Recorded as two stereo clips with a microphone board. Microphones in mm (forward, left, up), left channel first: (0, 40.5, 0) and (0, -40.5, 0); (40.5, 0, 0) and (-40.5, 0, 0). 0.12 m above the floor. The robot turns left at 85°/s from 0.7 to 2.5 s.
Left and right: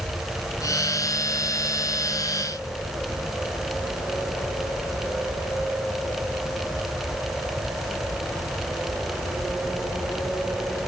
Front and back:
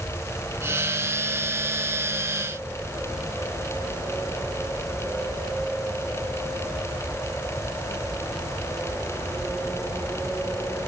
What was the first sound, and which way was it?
Only background noise.